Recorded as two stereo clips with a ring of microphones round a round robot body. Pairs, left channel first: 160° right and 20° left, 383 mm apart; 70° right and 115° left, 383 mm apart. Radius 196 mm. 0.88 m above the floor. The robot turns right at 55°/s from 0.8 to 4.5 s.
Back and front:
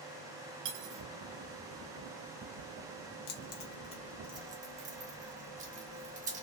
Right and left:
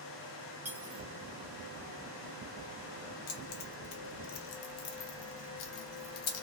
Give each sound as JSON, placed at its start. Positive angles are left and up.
{"t": 0.7, "sound": "cutlery clinking", "azimuth_deg": 25, "distance_m": 0.6}
{"t": 3.3, "sound": "keys jangling", "azimuth_deg": -115, "distance_m": 0.7}